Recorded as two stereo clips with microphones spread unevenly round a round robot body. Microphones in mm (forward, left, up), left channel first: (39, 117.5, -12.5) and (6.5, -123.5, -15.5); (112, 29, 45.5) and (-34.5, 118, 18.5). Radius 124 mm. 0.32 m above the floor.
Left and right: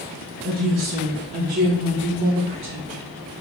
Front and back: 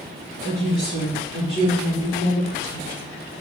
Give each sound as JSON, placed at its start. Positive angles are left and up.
{"t": 0.4, "sound": "a woman speaking", "azimuth_deg": -75, "distance_m": 3.5}